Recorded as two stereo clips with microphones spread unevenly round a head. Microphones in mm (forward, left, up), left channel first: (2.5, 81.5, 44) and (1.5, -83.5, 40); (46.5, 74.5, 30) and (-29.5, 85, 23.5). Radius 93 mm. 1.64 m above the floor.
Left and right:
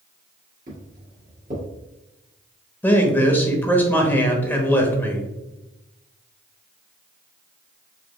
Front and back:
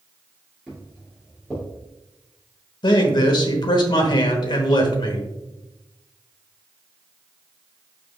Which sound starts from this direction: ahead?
A man speaking, at 2.8 s.